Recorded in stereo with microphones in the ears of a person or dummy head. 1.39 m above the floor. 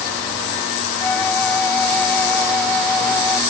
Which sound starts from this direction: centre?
A flute, at 1.0 s.